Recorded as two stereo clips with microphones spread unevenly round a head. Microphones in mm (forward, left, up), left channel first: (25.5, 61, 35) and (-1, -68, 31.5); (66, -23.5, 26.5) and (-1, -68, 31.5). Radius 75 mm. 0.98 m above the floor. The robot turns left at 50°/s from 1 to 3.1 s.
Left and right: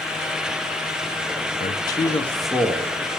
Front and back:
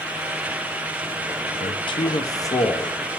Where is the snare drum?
I don't hear a snare drum.